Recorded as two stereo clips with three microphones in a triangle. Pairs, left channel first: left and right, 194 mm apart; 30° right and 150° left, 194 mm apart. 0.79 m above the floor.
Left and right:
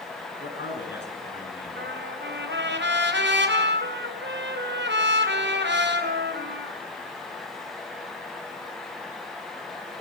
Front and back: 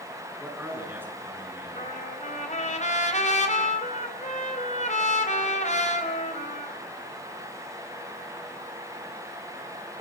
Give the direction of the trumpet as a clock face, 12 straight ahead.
3 o'clock.